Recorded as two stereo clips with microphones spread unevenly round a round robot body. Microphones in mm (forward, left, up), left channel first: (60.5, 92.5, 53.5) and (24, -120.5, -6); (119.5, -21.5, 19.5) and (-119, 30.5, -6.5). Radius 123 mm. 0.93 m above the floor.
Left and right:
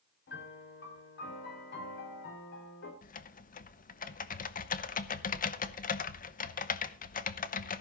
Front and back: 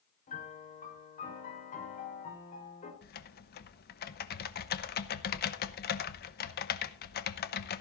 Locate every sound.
0.3 s a piano: 45° left, 4 m
3.0 s typing on a keyboard: 30° left, 0.8 m